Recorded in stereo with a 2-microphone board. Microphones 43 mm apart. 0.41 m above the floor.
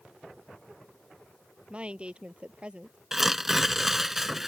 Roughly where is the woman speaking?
Right.